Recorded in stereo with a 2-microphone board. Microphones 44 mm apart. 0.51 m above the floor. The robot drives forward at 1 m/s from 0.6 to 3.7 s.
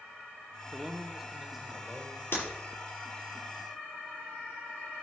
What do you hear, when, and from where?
0.7 s a man speaking: 15° right (ahead or behind), 0.7 m; by 2.2 s 5° right (ahead or behind), 1.9 m
2.3 s breaking glass: 50° left (ahead or behind), 6.5 m